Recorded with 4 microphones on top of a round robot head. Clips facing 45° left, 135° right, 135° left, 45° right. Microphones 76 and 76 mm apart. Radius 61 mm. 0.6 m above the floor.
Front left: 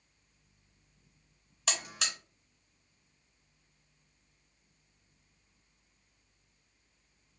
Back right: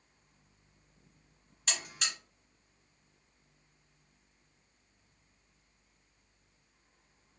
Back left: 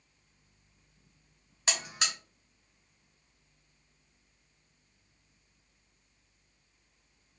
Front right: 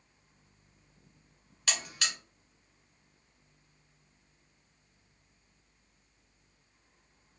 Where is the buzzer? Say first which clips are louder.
Front left 2 dB, back left 1 dB; 65° left, 0.6 m.